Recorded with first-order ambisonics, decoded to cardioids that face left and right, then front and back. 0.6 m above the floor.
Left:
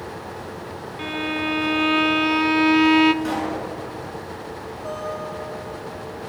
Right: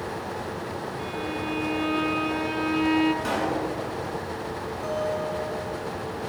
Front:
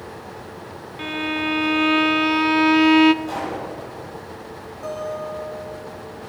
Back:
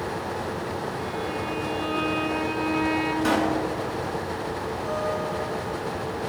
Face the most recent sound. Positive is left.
turn(degrees=-30)